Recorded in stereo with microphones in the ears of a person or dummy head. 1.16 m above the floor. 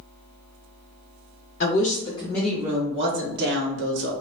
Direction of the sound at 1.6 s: 40° left (ahead or behind).